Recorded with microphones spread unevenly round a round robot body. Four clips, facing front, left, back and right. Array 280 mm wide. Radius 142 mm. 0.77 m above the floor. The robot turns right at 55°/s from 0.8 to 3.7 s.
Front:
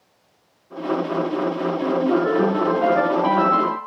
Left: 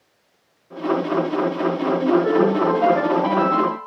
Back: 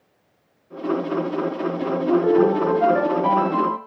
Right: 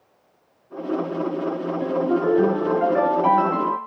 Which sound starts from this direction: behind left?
A ringtone, at 1.8 s.